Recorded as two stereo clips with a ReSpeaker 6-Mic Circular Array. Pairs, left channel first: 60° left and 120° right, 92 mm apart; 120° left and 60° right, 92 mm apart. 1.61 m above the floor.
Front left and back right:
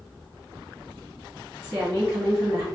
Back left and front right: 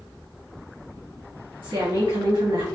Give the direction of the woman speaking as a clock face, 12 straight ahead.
3 o'clock.